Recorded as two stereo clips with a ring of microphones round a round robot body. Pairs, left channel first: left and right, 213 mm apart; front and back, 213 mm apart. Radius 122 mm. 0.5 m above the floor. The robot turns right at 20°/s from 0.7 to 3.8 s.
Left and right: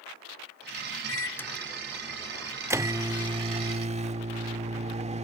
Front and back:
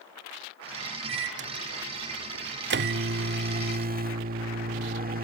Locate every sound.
1.1 s a microwave: 165° left; by 5.2 s 145° right